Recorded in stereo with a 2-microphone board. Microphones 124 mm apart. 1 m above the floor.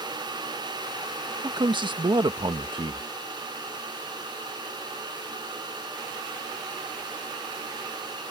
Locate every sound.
1.4 s a man speaking: 40° right (ahead or behind)